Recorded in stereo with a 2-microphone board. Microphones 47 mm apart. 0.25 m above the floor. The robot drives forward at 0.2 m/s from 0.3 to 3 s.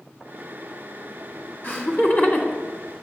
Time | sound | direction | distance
1.6 | laughter | 40° left (ahead or behind) | 2 m